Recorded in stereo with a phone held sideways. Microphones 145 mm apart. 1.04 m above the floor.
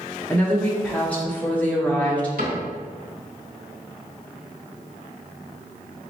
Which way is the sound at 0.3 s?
10° left (ahead or behind).